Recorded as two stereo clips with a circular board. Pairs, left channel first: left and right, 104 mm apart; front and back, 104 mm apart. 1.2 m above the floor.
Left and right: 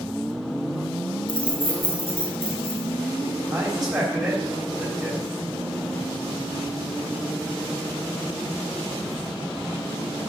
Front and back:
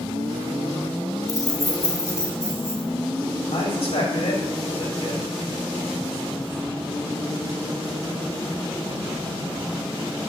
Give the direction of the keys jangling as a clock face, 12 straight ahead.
10 o'clock.